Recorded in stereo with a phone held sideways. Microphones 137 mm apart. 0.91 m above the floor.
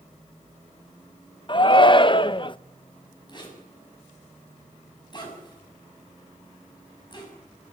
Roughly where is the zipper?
Left.